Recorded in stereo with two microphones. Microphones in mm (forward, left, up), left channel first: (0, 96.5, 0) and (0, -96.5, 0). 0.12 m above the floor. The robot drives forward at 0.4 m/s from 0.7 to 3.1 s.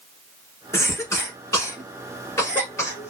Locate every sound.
0.7 s a cough: 15° left (ahead or behind), 1.2 m